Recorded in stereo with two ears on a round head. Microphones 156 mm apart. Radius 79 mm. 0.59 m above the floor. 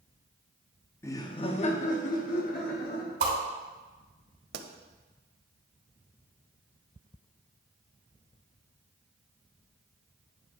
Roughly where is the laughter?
Centre.